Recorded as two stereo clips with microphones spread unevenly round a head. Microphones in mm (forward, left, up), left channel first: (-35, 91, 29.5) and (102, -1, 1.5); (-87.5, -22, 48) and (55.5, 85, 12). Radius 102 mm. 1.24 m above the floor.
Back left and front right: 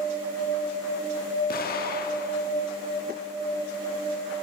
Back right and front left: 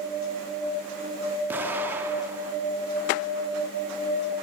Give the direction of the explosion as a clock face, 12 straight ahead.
8 o'clock.